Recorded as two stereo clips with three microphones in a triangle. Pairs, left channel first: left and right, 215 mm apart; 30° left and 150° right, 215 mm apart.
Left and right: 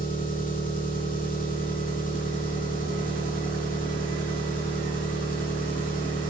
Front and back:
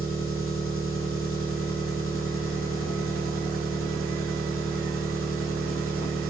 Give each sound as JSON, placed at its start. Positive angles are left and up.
{"t": 0.0, "sound": "an engine running", "azimuth_deg": 40, "distance_m": 2.0}